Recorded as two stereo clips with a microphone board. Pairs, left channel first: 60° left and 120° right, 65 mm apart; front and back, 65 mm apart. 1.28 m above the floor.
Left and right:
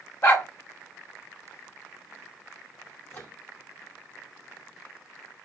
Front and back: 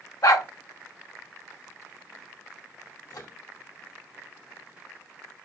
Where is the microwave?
5° left, 2.5 m.